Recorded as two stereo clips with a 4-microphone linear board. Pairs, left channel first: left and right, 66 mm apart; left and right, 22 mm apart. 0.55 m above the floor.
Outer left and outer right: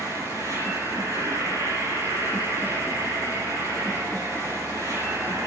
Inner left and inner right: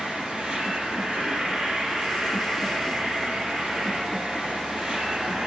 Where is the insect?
55° right (ahead or behind), 8.5 m.